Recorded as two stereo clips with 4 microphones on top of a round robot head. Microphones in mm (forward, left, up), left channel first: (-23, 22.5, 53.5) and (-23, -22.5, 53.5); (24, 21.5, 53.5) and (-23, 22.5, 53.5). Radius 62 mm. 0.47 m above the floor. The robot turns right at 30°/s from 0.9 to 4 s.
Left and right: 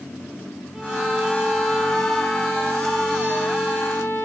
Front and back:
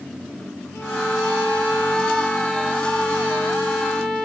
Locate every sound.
0.7 s a violin: 5° right, 2.5 m; by 4.3 s 85° left, 2.5 m